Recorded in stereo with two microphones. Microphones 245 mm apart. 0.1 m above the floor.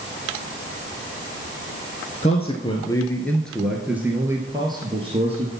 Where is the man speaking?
30° left (ahead or behind), 1.5 m; by 5.5 s 25° right (ahead or behind), 2 m.